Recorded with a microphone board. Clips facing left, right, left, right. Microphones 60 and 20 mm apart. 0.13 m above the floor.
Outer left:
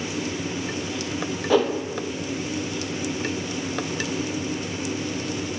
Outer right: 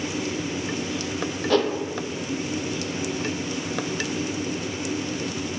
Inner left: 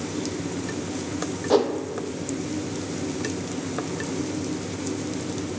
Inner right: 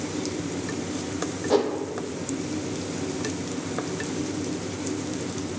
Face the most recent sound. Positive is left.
turn(degrees=10)  # may be behind; listen again after turning